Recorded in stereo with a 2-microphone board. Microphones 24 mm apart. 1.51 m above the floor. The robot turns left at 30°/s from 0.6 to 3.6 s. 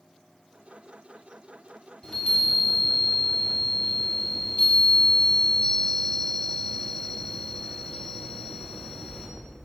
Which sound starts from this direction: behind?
A chime, at 2.0 s.